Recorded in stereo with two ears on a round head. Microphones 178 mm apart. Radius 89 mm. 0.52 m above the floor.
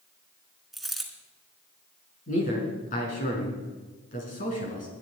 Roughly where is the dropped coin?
Centre.